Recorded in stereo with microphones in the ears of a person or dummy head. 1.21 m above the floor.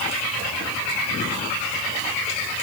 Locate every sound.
Only background noise.